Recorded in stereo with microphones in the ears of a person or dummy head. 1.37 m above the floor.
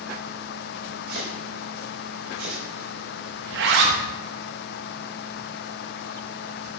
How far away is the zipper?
About 1.1 m.